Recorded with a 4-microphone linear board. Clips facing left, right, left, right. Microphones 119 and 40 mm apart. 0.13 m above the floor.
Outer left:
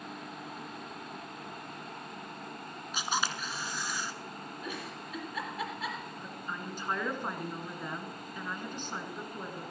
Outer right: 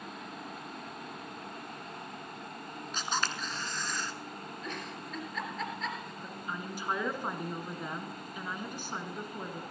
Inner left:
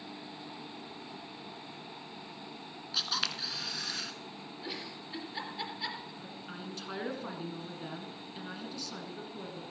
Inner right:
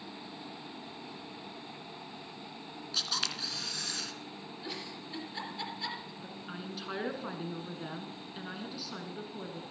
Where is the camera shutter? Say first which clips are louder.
Outer left 1 dB, inner left 1 dB; 10° left (ahead or behind), 1.2 m.